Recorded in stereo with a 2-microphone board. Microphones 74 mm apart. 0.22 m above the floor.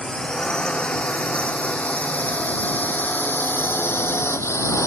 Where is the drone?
10° left (ahead or behind); by 4.9 s 40° left (ahead or behind).